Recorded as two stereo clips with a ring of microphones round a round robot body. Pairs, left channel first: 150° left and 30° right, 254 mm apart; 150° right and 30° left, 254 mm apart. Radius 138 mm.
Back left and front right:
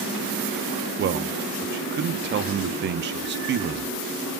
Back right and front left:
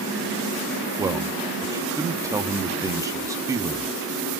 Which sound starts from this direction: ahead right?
A man speaking, at 1.0 s.